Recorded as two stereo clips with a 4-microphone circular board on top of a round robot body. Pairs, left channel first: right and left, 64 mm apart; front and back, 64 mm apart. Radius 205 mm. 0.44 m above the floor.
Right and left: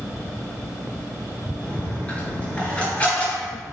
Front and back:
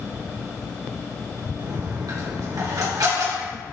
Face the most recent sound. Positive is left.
turn(degrees=-160)